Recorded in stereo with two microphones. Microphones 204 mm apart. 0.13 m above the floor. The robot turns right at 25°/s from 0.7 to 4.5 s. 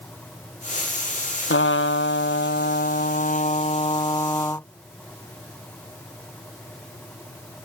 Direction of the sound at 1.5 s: 90° left.